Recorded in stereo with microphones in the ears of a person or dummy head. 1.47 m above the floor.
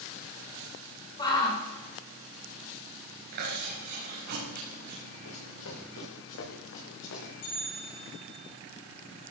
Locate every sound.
1.2 s a shout: 25° left (ahead or behind), 6 m
3.3 s chewing: 50° right (ahead or behind), 5.5 m
5.2 s running footsteps: 75° left (ahead or behind), 7 m; by 7.3 s 70° left (ahead or behind), 6.5 m
7.4 s a bell: 65° left (ahead or behind), 10 m